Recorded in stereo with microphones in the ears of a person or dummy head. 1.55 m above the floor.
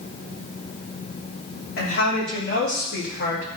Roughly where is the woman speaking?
Left.